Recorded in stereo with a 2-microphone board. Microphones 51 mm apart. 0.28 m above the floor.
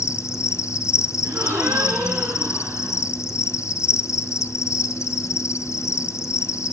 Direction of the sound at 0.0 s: 80° left.